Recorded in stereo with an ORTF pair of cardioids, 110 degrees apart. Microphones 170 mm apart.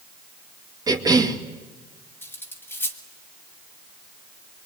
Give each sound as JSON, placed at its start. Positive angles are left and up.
{"t": 0.9, "sound": "a cough", "azimuth_deg": -20, "distance_m": 2.5}
{"t": 2.2, "sound": "cutlery clinking", "azimuth_deg": 10, "distance_m": 2.5}